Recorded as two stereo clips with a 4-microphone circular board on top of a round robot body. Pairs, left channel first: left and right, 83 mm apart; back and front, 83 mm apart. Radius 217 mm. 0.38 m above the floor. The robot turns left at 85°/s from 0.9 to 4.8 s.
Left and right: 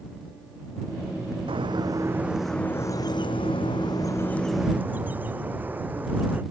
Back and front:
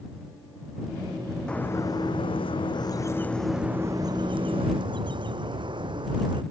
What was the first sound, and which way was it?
A bird, 100° right.